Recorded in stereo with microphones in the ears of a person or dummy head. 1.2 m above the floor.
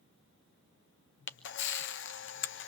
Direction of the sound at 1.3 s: 60° left (ahead or behind).